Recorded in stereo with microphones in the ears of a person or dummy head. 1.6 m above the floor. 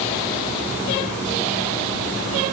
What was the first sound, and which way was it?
Only background noise.